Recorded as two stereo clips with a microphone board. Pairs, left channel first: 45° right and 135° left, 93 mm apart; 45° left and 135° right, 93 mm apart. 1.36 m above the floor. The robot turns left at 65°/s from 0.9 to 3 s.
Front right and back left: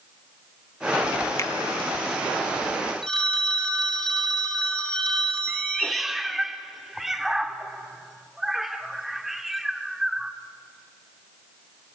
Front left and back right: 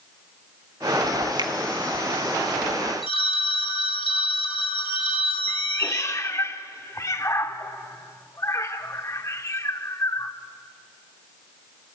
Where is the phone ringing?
35° left, 3 m.